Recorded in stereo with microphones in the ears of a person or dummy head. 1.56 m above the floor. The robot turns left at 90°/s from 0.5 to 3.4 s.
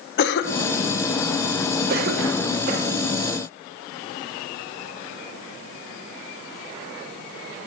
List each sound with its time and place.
0.2 s a cough: 65° left (ahead or behind), 1.1 m; by 3.1 s 25° right (ahead or behind), 1.1 m